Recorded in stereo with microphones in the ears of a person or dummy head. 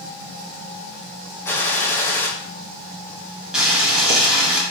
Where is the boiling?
5° right (ahead or behind), 3 m.